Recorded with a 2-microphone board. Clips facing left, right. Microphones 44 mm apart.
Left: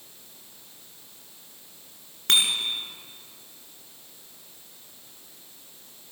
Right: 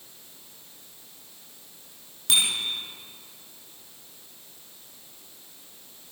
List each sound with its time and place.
2.3 s a bicycle bell: 60° left (ahead or behind), 3 m